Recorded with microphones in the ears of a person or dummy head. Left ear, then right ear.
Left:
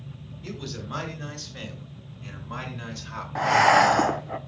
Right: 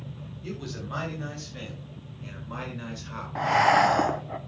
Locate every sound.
0.4 s a man speaking: 10° left (ahead or behind), 6.5 m; by 3.2 s 5° left (ahead or behind), 5 m
3.4 s breathing: 15° left (ahead or behind), 0.8 m